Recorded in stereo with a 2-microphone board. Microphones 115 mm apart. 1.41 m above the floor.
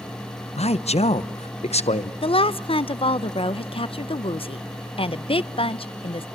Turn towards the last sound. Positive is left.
turn(degrees=55)  # may be behind; listen again after turning